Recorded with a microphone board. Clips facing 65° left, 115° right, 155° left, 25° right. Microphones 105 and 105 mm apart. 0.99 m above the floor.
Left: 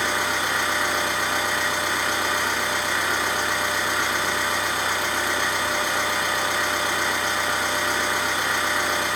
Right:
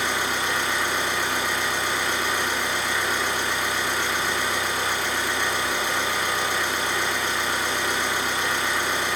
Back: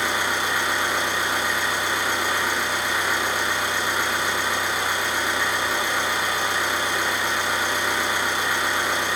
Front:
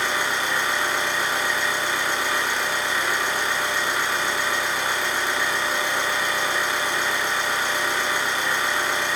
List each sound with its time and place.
0.0 s an engine running: 85° left, 1.1 m